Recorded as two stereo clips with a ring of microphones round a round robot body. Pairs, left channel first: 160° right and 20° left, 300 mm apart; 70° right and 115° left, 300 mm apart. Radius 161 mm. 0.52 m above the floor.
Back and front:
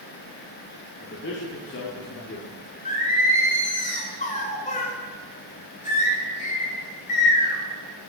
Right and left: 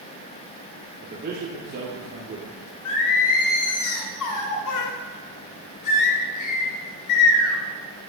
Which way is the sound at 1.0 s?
165° left.